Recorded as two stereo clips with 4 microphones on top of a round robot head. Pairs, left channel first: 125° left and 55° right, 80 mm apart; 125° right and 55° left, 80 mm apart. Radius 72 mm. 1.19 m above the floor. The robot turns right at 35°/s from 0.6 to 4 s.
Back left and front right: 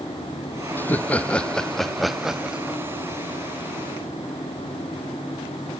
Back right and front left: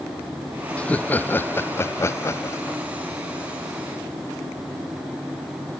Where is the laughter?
170° left; by 2.8 s 120° right.